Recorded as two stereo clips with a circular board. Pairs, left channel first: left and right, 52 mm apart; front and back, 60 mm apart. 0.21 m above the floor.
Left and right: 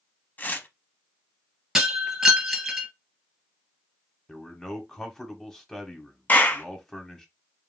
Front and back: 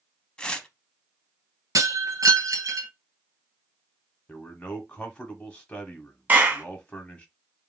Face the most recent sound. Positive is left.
turn(degrees=135)